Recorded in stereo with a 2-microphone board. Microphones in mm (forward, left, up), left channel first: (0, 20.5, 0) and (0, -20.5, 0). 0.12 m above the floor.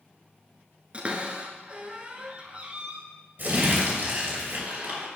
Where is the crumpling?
50° right (ahead or behind), 2.5 m.